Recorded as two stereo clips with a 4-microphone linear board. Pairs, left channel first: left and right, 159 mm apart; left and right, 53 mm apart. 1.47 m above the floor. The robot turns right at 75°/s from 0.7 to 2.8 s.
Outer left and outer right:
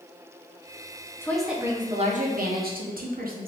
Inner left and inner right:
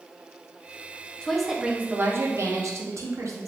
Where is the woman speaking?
165° left, 0.6 m; by 3.5 s 75° right, 0.6 m.